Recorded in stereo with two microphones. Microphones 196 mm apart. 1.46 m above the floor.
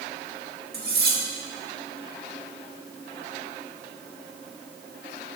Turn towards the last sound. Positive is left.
turn(degrees=-55)  # may be behind; listen again after turning